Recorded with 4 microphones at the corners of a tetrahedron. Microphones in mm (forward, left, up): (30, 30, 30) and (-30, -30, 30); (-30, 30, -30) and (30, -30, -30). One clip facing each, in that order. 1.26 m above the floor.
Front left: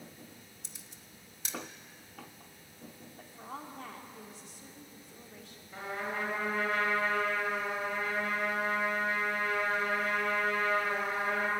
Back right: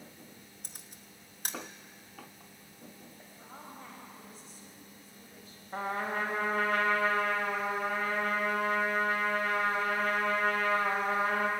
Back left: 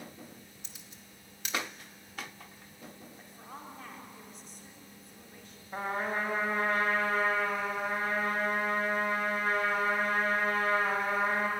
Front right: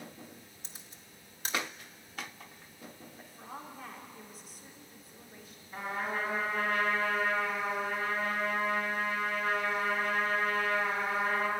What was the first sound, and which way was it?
A camera shutter, 95° right.